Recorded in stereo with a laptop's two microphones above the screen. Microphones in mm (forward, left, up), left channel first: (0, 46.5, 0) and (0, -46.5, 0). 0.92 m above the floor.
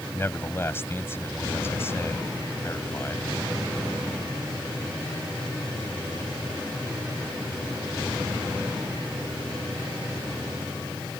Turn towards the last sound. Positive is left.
turn(degrees=25)  # may be behind; listen again after turning